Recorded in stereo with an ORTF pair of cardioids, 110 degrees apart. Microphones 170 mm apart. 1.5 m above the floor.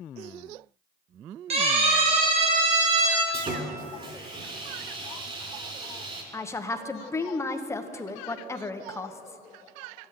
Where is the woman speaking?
15° left, 1.0 m.